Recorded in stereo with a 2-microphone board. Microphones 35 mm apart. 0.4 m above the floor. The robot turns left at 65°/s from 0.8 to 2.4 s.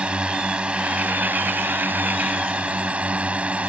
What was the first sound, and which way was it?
A drone, 35° right.